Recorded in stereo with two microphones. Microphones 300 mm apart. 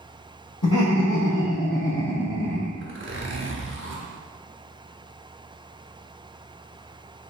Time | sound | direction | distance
0.6 | laughter | 55° left (ahead or behind) | 1.7 m
2.8 | a zipper | 40° right (ahead or behind) | 0.7 m